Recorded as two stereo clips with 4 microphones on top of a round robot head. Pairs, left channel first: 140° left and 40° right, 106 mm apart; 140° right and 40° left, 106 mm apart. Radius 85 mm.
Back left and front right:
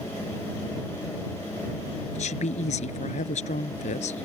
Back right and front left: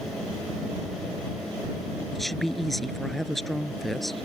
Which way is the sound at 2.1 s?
130° left.